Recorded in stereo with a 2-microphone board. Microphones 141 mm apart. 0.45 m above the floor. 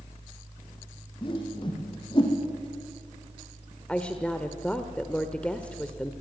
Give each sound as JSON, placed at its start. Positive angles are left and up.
{"t": 1.2, "sound": "a whoosh", "side_deg": 35, "distance_m": 5.0}
{"t": 3.9, "sound": "a woman speaking", "side_deg": 10, "distance_m": 1.3}